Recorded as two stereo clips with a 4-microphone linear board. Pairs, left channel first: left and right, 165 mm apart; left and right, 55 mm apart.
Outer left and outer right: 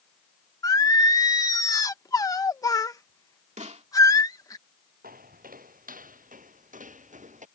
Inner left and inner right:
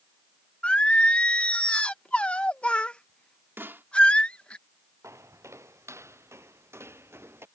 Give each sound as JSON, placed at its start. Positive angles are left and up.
{"t": 0.6, "sound": "singing", "side_deg": 20}
{"t": 3.6, "sound": "a snare drum", "side_deg": -45}
{"t": 5.0, "sound": "footsteps", "side_deg": -60}